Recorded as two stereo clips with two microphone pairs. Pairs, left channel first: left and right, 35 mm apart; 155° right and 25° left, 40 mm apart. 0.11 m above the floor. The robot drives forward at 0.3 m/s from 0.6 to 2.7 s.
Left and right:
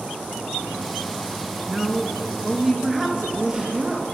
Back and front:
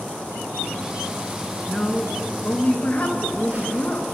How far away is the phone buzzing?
About 3 m.